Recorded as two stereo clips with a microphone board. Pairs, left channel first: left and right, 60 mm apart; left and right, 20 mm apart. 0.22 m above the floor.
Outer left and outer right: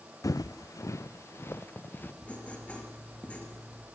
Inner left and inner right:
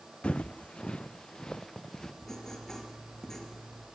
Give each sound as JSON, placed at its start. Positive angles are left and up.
{"t": 0.2, "sound": "footsteps", "side_deg": 70, "distance_m": 0.6}
{"t": 2.2, "sound": "writing", "side_deg": 20, "distance_m": 4.0}